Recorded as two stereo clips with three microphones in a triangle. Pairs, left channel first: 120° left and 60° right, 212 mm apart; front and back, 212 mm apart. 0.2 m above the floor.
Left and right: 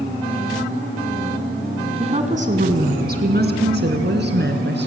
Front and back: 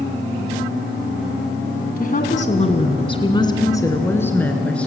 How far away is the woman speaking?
About 2 m.